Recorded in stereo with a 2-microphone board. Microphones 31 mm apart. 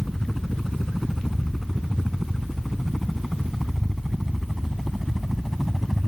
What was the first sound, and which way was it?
A helicopter, 5° left (ahead or behind).